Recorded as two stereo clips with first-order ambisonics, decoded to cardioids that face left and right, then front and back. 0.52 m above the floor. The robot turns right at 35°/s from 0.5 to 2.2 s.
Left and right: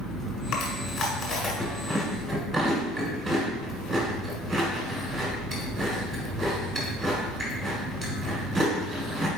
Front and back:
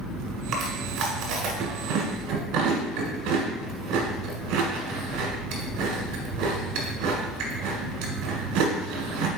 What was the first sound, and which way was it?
Chewing, 125° left.